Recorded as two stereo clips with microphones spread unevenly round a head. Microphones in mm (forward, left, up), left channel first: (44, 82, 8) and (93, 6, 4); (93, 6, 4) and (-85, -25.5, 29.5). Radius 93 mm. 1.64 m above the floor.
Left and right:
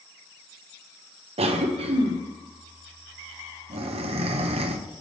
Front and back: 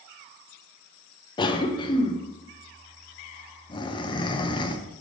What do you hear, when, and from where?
1.4 s a cough: 55° right, 0.8 m